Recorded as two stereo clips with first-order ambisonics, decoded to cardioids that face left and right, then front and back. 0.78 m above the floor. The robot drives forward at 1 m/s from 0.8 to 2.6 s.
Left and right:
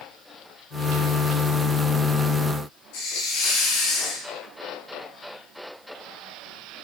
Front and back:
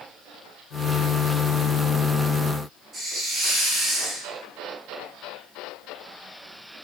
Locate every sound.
2.9 s a hiss: 105° left, 7.5 m